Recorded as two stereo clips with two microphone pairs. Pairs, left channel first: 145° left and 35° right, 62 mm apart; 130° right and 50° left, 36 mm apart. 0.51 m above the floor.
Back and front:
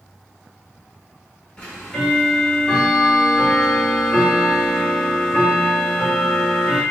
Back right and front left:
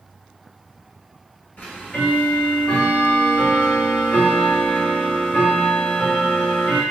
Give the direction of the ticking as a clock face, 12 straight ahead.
5 o'clock.